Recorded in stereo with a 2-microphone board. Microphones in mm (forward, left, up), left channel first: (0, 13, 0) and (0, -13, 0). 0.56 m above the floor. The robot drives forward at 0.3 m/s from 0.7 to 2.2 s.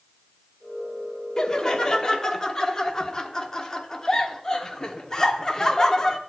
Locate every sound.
1.4 s laughter: 30° left (ahead or behind), 0.9 m; by 6.2 s 25° left (ahead or behind), 1.1 m